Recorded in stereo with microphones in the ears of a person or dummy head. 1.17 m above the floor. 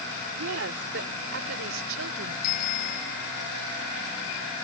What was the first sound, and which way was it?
A woman speaking, 70° right (ahead or behind).